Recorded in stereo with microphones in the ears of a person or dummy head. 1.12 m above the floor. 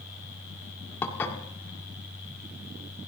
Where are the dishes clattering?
10° left (ahead or behind), 2.0 m.